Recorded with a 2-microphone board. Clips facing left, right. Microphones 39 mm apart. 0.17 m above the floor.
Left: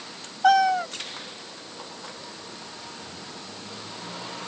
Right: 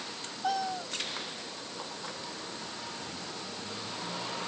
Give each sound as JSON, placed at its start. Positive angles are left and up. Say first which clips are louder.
{"t": 0.4, "sound": "a cat meowing", "louder": "left 13 dB", "side_deg": 70}